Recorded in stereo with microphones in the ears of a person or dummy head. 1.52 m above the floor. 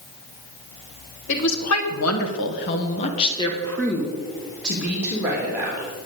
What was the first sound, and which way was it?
A woman speaking, 70° left (ahead or behind).